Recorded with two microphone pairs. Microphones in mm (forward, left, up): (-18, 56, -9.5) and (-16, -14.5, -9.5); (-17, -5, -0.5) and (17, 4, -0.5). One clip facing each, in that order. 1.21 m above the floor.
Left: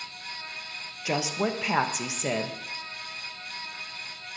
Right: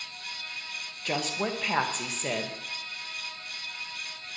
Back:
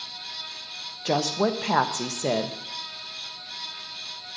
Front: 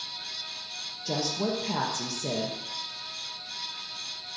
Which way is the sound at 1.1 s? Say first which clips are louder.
Left 3 dB, back 6 dB; 170° left.